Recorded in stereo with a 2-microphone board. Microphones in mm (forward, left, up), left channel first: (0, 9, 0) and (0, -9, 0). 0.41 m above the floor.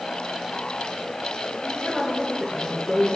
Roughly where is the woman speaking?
Left.